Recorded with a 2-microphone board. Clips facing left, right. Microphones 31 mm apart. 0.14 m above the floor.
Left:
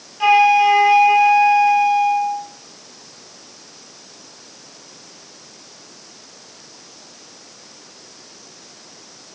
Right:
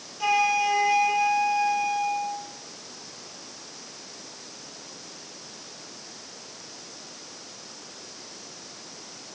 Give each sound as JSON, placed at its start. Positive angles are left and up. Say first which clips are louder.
{"t": 0.2, "sound": "a flute", "louder": "left 10 dB", "side_deg": 40, "distance_m": 1.1}